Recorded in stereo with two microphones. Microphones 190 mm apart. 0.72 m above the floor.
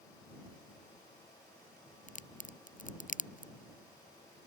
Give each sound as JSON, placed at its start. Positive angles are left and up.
{"t": 2.1, "sound": "a crack", "side_deg": 40}